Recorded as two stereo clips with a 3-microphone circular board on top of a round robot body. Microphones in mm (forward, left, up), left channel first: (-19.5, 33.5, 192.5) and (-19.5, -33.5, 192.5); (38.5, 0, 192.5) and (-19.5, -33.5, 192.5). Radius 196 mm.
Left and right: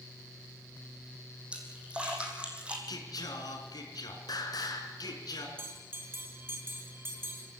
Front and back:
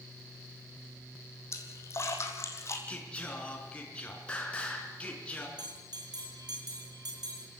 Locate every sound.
1.5 s a splash: 15° right, 3.5 m
2.9 s singing: 105° left, 4 m
5.6 s a bell: 145° right, 4.5 m